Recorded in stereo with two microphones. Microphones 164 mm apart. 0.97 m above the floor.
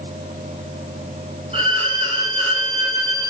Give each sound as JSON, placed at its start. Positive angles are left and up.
{"t": 1.5, "sound": "a violin", "side_deg": -40, "distance_m": 2.5}